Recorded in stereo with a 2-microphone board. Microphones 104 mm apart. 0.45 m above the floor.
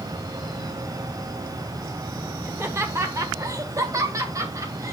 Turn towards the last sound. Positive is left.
turn(degrees=-30)  # may be behind; listen again after turning